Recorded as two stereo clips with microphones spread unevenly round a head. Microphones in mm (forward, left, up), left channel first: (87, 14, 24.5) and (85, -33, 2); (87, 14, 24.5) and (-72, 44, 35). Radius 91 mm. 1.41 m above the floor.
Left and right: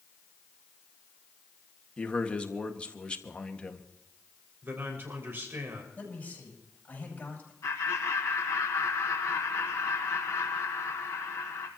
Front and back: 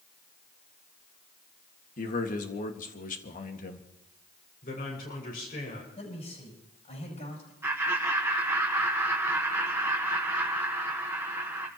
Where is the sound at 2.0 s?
25° left, 1.9 m.